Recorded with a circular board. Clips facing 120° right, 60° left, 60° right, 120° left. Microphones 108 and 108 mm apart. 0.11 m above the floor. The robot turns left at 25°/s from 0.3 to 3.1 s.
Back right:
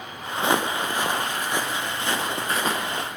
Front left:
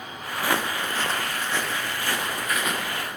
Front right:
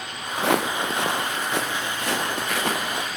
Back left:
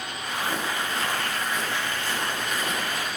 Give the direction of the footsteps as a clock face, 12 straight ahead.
2 o'clock.